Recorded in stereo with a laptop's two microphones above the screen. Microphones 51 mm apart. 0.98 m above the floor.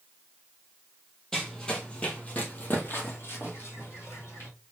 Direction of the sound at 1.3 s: 10° left (ahead or behind).